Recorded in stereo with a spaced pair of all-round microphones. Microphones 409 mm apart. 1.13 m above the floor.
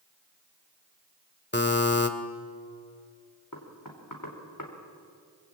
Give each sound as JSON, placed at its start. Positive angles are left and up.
{"t": 1.5, "sound": "a buzzer", "side_deg": 25, "distance_m": 1.6}
{"t": 3.5, "sound": "knocking", "side_deg": 50, "distance_m": 3.5}